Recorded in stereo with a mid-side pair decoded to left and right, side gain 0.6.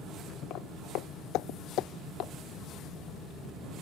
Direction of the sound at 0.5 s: 65° left.